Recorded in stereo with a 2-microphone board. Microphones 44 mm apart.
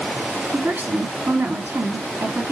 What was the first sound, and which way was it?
A woman speaking, 60° right (ahead or behind).